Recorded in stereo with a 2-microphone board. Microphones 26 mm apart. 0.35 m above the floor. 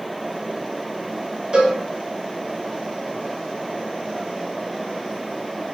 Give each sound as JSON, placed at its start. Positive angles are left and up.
{"t": 1.5, "sound": "a cowbell", "side_deg": -35, "distance_m": 0.8}